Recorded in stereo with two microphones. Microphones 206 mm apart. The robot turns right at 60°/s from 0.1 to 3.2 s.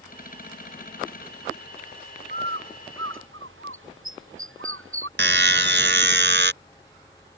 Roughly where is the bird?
Right.